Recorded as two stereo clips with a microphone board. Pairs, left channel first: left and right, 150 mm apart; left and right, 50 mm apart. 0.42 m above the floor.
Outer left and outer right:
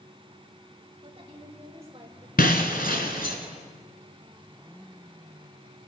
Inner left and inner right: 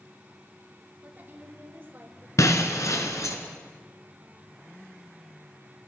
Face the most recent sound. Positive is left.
turn(degrees=85)